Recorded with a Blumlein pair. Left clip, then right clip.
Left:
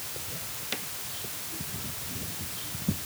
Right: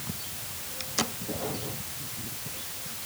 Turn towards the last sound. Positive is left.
No sound to turn to.